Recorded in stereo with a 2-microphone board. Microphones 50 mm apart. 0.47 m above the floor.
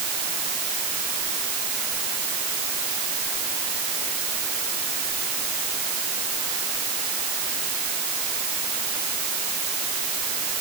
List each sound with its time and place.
Only background noise.